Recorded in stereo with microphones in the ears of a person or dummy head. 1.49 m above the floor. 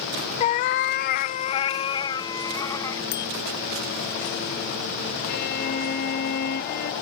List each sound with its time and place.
0.4 s a cat meowing: 40° left (ahead or behind); by 3.0 s 15° left (ahead or behind)
3.1 s a bicycle bell: 60° left (ahead or behind)
5.3 s a violin: 60° left (ahead or behind)